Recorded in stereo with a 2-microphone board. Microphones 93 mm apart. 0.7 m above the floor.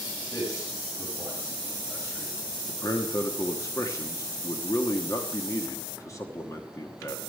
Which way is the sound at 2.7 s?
30° left (ahead or behind).